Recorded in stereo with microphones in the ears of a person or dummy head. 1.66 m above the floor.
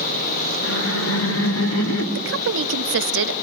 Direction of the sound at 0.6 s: 85° left.